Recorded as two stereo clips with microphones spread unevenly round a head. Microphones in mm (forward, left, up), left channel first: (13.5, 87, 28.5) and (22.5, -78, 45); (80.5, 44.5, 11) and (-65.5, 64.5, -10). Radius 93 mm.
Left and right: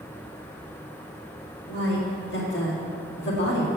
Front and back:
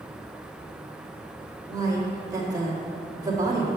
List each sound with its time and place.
1.7 s a woman speaking: 105° left, 2 m